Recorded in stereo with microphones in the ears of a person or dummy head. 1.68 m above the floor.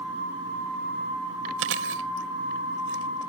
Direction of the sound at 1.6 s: 65° right (ahead or behind).